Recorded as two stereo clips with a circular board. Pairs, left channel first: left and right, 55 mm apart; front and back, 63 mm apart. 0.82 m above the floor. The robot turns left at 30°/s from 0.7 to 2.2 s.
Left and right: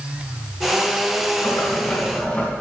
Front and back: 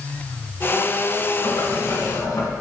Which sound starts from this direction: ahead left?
Boiling, at 1.4 s.